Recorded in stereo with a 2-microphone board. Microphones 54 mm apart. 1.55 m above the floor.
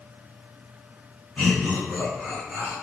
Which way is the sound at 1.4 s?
15° left (ahead or behind).